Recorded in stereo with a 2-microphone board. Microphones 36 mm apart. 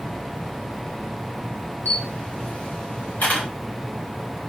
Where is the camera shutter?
55° left (ahead or behind), 1.9 m.